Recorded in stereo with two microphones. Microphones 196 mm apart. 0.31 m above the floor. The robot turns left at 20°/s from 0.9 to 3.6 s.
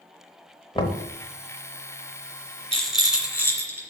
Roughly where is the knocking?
Left.